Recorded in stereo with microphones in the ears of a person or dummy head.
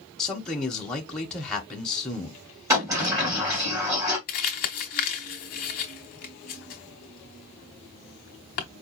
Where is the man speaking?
5° left (ahead or behind), 0.7 m.